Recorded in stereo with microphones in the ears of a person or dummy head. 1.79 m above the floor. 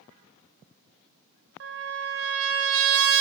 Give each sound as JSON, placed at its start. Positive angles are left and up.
{"t": 1.6, "sound": "a trumpet", "side_deg": -60, "distance_m": 1.0}